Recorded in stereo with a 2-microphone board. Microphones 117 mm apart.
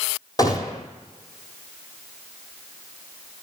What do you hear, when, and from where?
0.4 s a gunshot: 35° left (ahead or behind), 1.7 m